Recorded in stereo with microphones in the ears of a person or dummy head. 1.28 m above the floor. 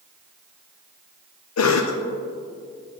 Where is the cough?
75° left (ahead or behind), 0.5 m.